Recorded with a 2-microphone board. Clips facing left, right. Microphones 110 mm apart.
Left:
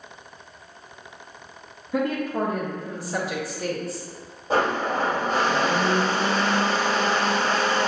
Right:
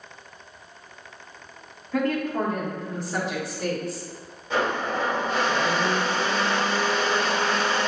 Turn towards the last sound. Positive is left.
turn(degrees=40)  # may be behind; listen again after turning